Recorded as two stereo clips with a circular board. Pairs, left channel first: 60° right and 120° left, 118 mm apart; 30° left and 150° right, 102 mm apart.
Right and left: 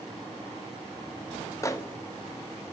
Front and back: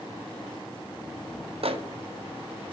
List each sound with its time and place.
1.6 s a microwave: 125° right, 0.6 m